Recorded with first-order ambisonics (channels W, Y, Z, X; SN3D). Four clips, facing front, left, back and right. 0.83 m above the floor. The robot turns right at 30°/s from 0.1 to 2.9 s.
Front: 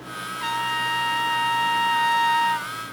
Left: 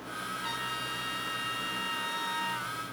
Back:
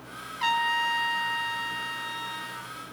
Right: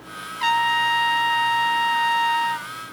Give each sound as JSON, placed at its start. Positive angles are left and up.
{"t": 0.4, "sound": "a trumpet", "azimuth_deg": -100, "distance_m": 1.8}